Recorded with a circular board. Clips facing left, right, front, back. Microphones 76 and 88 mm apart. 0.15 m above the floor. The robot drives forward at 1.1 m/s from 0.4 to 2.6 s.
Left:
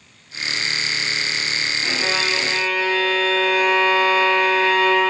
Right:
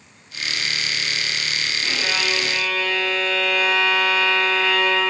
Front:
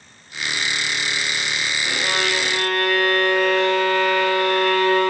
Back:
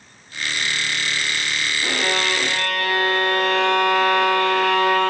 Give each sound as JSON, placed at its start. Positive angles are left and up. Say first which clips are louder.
{"t": 1.8, "sound": "a violin", "louder": "left 2 dB, back 1 dB", "azimuth_deg": 160, "distance_m": 4.5}